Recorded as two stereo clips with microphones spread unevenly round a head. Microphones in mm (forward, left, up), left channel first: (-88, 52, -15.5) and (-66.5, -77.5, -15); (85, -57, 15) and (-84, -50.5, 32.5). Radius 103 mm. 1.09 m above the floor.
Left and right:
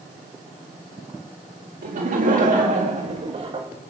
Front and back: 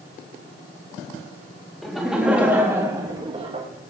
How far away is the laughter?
About 2 m.